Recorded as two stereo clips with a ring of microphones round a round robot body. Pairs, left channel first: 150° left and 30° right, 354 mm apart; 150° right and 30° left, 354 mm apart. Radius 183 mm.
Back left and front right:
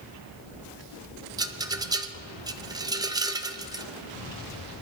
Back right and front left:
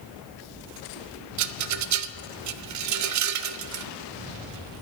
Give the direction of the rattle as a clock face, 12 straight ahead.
10 o'clock.